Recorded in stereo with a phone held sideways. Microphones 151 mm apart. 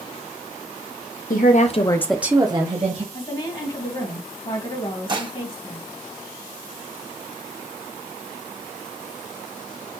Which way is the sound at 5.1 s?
30° right (ahead or behind).